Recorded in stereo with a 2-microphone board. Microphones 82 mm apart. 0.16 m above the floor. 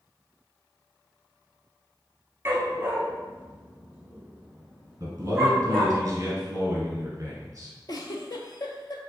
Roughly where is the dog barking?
Right.